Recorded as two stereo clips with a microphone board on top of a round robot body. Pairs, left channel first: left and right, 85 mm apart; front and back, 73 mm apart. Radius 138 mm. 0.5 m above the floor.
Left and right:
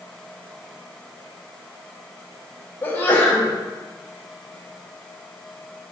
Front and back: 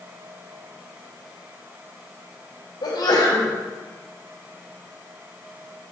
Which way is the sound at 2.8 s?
20° left.